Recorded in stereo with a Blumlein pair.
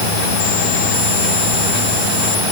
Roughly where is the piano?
No piano in this recording.